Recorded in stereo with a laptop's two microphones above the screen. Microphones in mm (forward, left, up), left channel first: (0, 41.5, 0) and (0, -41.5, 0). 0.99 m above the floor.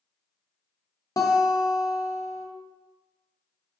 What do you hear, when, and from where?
1.2 s a guitar: 40° left (ahead or behind), 0.5 m